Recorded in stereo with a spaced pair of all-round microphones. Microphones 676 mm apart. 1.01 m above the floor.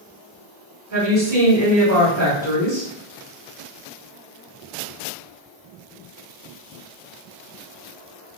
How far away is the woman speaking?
About 1.9 m.